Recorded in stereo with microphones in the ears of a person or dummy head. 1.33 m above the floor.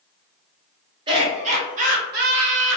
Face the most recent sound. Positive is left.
turn(degrees=-70)  # may be behind; listen again after turning